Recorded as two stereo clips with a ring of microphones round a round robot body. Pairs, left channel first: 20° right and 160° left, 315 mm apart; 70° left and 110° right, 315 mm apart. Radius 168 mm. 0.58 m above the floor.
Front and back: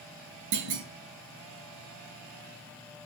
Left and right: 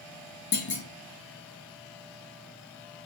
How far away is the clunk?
About 1.8 m.